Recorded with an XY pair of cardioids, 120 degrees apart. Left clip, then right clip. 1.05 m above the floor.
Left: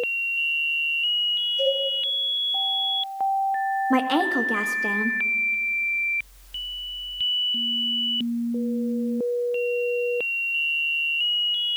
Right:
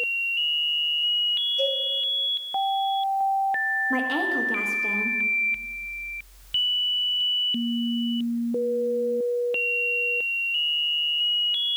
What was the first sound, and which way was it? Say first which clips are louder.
A cowbell: left 2 dB; 35° right.